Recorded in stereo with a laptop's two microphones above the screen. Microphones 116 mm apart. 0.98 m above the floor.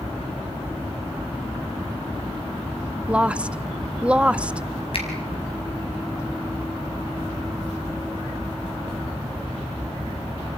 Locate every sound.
3.1 s a woman speaking: 10° right (ahead or behind), 0.5 m
4.9 s a finger snap: 55° left (ahead or behind), 5 m